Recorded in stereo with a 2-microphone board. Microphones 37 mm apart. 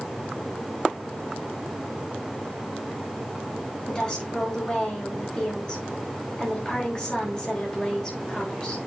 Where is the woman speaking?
20° left (ahead or behind), 5 m.